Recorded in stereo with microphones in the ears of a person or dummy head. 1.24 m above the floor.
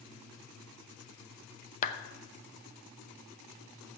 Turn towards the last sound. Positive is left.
turn(degrees=40)  # may be behind; listen again after turning